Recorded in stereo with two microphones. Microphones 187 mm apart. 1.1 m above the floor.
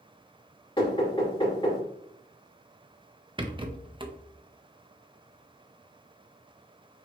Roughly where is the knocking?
Left.